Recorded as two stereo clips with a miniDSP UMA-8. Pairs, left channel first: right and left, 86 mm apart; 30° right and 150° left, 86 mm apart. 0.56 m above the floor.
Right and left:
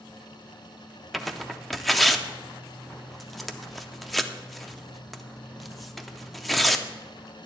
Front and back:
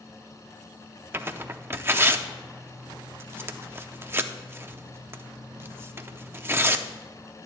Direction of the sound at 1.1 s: Straight behind.